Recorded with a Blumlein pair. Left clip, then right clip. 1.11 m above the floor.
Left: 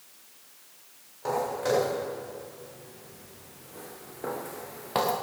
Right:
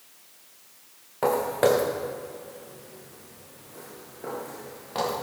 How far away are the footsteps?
About 4.5 m.